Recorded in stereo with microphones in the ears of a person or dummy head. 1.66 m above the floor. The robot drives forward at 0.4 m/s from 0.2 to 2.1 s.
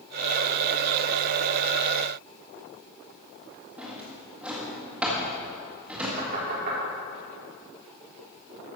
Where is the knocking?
60° right (ahead or behind), 4 m.